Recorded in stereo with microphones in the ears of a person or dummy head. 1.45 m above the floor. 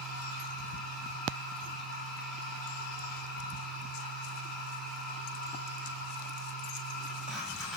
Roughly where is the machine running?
Centre.